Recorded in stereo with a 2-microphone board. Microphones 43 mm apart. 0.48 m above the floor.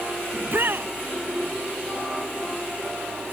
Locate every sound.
0.3 s a shout: 55° right (ahead or behind)